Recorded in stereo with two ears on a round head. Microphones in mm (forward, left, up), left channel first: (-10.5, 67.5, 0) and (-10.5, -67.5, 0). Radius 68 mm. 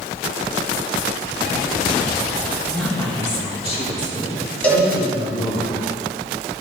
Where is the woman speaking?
5° left (ahead or behind), 1.2 m; by 5.6 s 60° left (ahead or behind), 3 m.